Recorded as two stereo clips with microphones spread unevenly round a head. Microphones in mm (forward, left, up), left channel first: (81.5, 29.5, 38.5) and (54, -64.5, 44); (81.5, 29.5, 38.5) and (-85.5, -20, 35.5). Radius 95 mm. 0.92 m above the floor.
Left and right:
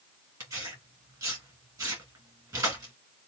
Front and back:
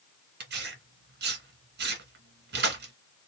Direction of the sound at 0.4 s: 165° right.